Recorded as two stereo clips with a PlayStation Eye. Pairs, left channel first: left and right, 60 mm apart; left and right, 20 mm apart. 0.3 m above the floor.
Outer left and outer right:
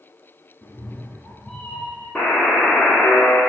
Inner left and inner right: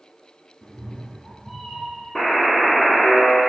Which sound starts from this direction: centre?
A buzzer, at 2.1 s.